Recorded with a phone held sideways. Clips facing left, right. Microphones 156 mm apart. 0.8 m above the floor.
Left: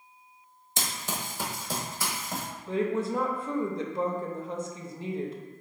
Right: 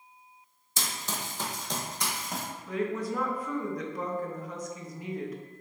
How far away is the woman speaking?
About 0.6 m.